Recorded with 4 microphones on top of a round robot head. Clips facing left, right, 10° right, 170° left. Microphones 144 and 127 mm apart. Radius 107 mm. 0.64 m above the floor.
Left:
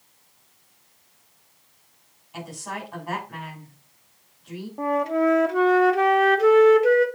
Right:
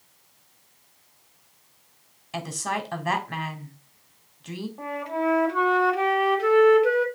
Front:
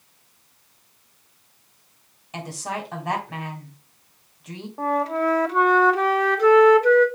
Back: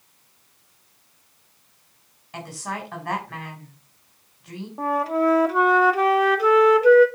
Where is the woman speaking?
85° right, 3 m.